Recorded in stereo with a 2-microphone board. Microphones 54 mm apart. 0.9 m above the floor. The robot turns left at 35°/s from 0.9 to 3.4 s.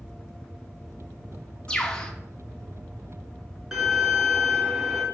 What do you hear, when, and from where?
1.7 s a bird: 20° left (ahead or behind), 0.6 m; by 2.1 s 15° left (ahead or behind), 0.6 m
3.7 s a violin: 5° right (ahead or behind), 0.8 m